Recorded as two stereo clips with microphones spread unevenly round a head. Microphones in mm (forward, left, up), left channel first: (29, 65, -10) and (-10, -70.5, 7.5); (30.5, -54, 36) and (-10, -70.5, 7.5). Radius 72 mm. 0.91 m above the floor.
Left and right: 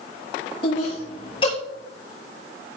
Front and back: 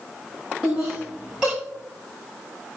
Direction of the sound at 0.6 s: 130° left.